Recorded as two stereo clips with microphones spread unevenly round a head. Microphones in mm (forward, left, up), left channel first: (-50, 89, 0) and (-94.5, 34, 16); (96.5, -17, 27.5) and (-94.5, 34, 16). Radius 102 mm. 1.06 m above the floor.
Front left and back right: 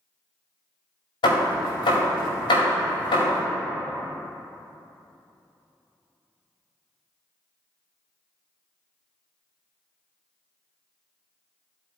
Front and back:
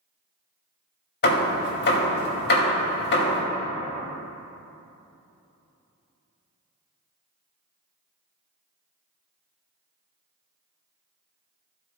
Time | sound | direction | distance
1.2 | hammering | 25° left | 1.6 m